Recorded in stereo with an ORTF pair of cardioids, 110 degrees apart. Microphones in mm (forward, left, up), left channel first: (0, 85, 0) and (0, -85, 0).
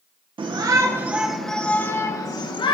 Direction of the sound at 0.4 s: 30° right.